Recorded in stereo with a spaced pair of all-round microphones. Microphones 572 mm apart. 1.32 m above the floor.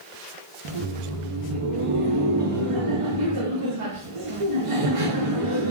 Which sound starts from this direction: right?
Laughter, at 0.7 s.